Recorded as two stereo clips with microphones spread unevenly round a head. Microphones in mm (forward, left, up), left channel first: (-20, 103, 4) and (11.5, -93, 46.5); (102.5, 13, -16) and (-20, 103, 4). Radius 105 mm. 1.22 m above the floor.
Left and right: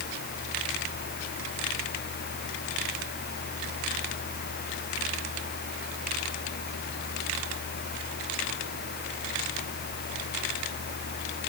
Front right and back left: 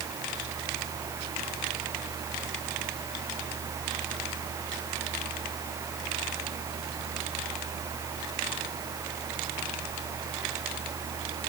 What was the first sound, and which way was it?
Only background noise.